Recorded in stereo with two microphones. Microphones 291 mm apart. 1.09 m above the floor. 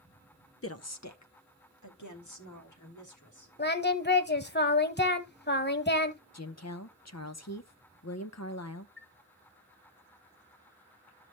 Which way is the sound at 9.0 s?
5° left (ahead or behind).